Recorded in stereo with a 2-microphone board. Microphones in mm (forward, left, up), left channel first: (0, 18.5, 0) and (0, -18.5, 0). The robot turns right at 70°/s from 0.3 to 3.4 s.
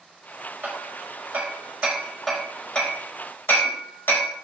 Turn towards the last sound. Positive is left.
turn(degrees=75)  # may be behind; listen again after turning